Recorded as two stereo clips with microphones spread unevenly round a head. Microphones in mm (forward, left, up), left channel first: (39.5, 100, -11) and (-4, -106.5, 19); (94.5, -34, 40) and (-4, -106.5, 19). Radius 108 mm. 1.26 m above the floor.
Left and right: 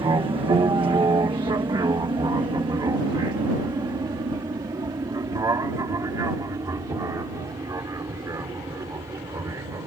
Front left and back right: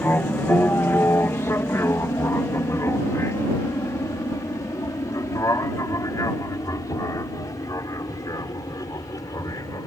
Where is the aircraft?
35° right; by 9.9 s 25° right.